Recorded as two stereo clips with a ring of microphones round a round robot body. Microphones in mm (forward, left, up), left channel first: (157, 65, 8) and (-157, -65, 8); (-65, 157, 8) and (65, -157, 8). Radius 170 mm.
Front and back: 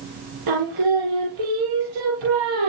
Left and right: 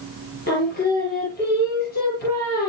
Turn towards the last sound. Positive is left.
turn(degrees=175)